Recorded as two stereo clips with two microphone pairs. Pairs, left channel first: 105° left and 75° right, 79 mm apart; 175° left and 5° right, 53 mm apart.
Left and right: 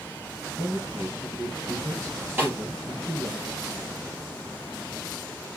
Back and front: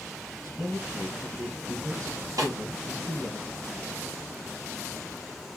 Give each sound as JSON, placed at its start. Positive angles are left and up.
{"t": 0.4, "sound": "a man speaking", "azimuth_deg": 0, "distance_m": 3.5}
{"t": 2.4, "sound": "a snare drum", "azimuth_deg": -10, "distance_m": 4.5}